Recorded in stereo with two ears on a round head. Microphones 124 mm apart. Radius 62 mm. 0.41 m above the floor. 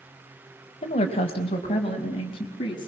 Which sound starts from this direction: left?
A woman speaking, at 0.8 s.